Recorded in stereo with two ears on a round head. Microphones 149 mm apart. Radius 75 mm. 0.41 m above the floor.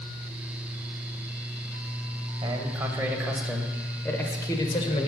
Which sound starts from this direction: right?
A man speaking, at 2.4 s.